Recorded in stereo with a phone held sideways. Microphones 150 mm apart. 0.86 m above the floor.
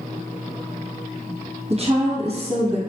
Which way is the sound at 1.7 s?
40° right (ahead or behind).